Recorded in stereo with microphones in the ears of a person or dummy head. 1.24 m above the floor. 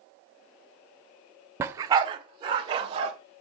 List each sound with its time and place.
1.6 s a dog barking: 15° right (ahead or behind), 0.7 m; by 3.1 s 35° right (ahead or behind), 2.5 m